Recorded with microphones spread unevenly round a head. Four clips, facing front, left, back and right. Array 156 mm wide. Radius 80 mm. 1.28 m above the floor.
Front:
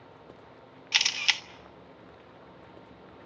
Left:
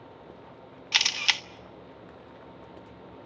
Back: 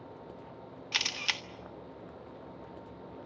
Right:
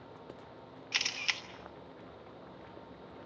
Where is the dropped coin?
No dropped coin in this recording.